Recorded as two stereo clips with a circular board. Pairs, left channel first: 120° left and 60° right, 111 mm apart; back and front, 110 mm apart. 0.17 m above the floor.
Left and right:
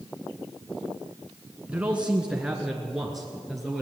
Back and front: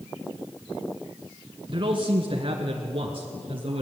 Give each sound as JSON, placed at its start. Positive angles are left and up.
{"t": 1.7, "sound": "a man speaking", "azimuth_deg": 15, "distance_m": 1.5}